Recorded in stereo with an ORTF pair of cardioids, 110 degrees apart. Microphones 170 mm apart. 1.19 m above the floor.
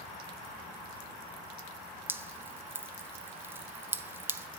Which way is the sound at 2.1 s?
15° right.